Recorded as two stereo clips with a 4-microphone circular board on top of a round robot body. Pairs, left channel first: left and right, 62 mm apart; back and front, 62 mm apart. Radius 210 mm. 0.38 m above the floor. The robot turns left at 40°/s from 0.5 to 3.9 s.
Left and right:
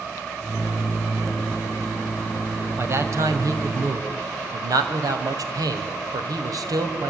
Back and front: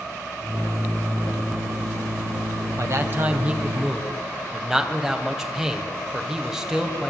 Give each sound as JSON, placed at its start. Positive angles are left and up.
{"t": 2.8, "sound": "a man speaking", "azimuth_deg": -40, "distance_m": 3.0}